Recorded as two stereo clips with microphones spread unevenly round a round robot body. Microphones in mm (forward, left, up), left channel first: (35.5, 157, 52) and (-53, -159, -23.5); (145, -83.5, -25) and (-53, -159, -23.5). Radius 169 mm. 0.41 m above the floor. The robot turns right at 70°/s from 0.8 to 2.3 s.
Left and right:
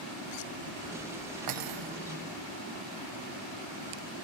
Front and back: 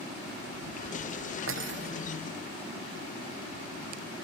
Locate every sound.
1.5 s cutlery clinking: 140° right; by 1.9 s 110° right